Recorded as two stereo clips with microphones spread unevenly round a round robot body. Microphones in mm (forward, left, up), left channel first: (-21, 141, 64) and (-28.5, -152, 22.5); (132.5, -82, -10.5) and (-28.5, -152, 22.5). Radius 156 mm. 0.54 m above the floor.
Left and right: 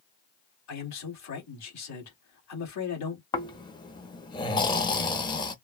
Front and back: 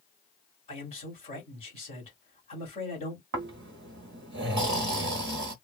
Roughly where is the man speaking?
Left.